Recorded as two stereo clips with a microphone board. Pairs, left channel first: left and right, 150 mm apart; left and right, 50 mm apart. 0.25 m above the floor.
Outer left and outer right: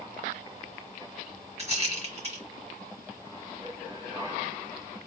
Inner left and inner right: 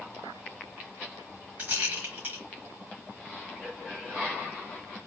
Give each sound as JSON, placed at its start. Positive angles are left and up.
{"t": 1.6, "sound": "a rattle", "side_deg": -45, "distance_m": 2.5}